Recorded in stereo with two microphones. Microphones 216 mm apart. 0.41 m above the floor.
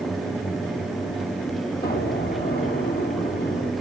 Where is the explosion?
45° left (ahead or behind), 2 m.